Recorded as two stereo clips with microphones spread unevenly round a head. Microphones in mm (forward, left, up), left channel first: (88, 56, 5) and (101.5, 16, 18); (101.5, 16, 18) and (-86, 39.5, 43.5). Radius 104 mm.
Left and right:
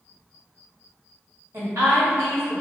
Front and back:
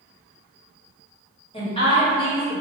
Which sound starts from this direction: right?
A woman speaking, at 1.5 s.